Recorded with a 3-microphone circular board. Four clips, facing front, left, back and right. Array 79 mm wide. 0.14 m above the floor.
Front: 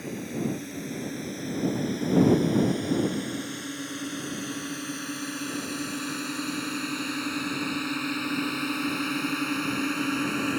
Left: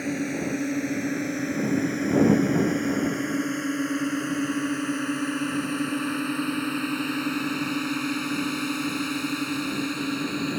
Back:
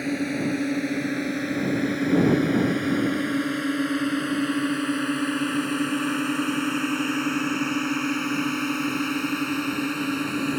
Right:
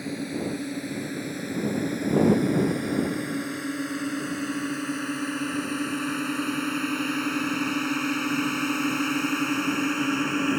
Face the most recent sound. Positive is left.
turn(degrees=-90)